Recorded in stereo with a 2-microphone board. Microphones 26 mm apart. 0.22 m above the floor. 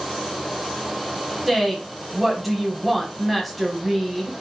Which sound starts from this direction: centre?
A woman speaking, at 1.5 s.